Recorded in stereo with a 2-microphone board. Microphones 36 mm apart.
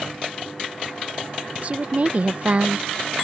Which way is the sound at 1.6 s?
40° right (ahead or behind).